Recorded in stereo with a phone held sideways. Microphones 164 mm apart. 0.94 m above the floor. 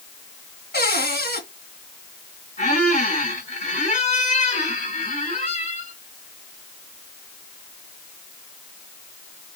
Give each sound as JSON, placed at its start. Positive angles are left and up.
{"t": 0.7, "sound": "a cupboard door", "side_deg": 80, "distance_m": 2.5}
{"t": 2.6, "sound": "a squeak", "side_deg": 50, "distance_m": 3.0}